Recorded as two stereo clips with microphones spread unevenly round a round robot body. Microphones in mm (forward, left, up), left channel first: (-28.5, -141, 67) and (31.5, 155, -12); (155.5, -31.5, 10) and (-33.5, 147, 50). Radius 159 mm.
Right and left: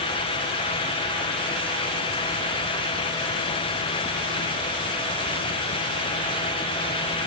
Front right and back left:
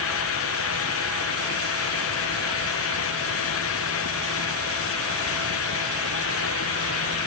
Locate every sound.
Only background noise.